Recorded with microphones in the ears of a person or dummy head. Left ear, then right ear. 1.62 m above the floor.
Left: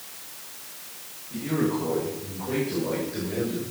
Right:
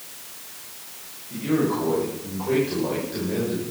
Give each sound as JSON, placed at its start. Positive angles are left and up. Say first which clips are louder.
{"t": 1.3, "sound": "a man speaking", "louder": "right 3 dB", "side_deg": -60, "distance_m": 8.5}